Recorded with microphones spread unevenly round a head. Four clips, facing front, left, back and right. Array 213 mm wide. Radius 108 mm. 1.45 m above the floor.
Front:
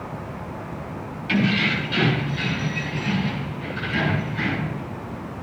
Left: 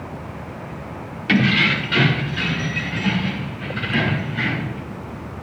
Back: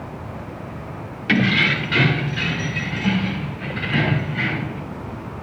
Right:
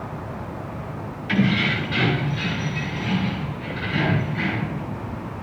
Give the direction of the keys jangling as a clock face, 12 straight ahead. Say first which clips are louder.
Left 3 dB, back 2 dB; 7 o'clock.